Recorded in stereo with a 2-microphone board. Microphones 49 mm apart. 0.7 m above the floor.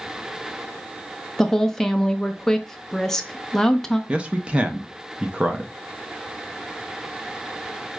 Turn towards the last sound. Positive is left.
turn(degrees=-25)  # may be behind; listen again after turning